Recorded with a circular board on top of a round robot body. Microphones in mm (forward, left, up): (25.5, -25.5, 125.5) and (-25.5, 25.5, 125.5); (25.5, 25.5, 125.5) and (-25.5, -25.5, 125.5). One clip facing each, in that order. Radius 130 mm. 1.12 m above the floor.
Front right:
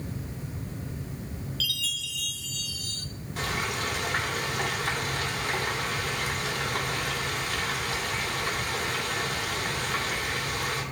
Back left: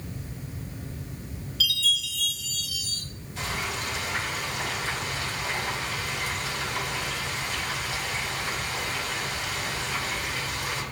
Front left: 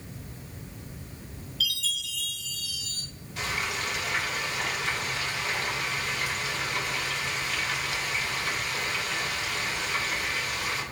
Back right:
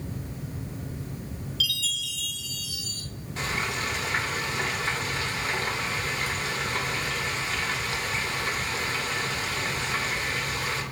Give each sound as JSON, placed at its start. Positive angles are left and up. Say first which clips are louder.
{"t": 1.6, "sound": "a chime", "louder": "back left 9 dB, even", "azimuth_deg": -145, "distance_m": 1.3}
{"t": 3.4, "sound": "frying", "louder": "front right 1 dB, back right 1 dB", "azimuth_deg": -80, "distance_m": 2.5}